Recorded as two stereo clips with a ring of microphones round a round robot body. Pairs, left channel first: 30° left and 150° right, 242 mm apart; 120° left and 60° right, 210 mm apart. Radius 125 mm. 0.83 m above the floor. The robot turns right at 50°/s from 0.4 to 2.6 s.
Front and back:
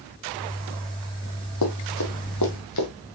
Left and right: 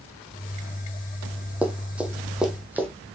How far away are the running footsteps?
About 1.9 m.